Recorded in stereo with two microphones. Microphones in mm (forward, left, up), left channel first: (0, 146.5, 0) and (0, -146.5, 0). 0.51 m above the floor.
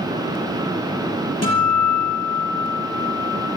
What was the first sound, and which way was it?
A guitar, 65° left (ahead or behind).